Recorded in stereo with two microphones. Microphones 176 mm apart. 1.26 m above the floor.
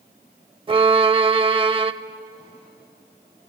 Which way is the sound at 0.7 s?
30° right (ahead or behind).